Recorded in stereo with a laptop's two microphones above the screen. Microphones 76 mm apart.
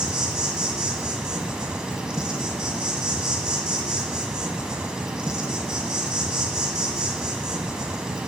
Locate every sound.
0.0 s an insect: 10° right (ahead or behind), 0.9 m